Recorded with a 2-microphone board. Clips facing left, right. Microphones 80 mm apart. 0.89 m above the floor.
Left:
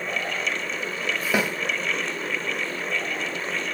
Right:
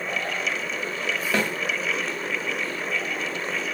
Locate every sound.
1.3 s a snare drum: 10° left (ahead or behind), 0.6 m